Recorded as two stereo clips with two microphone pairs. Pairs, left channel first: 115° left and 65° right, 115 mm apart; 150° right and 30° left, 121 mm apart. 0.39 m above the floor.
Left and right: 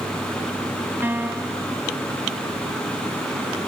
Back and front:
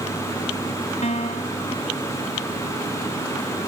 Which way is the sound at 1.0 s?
135° right.